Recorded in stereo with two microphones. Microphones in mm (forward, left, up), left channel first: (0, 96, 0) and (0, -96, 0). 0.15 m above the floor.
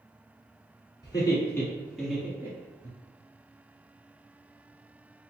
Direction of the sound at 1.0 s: 20° left (ahead or behind).